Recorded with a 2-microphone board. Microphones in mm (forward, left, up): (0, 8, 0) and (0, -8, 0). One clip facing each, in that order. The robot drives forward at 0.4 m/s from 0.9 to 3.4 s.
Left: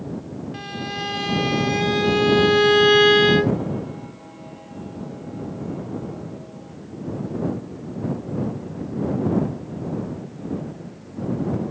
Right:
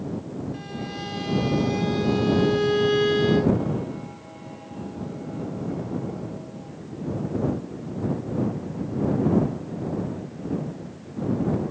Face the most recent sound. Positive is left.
turn(degrees=60)  # may be behind; listen again after turning